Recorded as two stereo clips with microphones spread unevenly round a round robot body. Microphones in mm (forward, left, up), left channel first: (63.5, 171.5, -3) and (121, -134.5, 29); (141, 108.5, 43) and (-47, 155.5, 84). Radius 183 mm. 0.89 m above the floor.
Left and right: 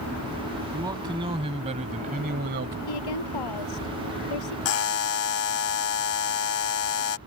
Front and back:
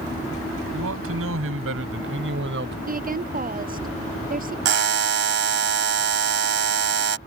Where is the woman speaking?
125° left.